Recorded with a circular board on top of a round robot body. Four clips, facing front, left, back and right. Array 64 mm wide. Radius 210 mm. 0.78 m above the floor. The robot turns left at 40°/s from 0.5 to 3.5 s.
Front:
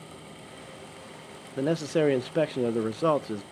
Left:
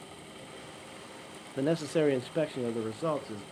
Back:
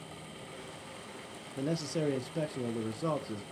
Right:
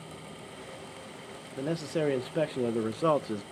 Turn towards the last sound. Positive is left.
turn(degrees=-45)